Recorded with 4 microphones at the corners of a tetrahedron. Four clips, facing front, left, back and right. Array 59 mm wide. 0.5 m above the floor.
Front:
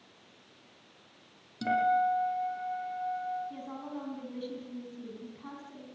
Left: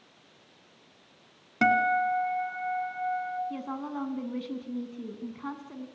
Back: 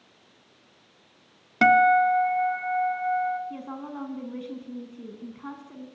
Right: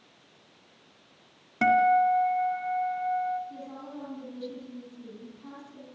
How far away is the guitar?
About 2 m.